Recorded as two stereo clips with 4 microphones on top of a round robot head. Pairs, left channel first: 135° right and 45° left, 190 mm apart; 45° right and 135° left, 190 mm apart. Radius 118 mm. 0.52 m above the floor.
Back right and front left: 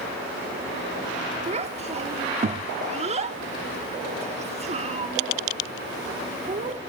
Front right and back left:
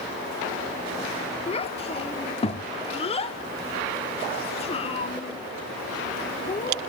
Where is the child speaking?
5° left, 1.1 m.